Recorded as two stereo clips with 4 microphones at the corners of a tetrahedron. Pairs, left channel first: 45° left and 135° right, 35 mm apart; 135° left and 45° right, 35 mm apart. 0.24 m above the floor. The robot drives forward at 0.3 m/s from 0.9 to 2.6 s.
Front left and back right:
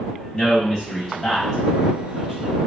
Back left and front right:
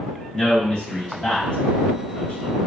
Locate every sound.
0.3 s a man speaking: 115° left, 1.0 m; by 2.5 s 150° left, 1.2 m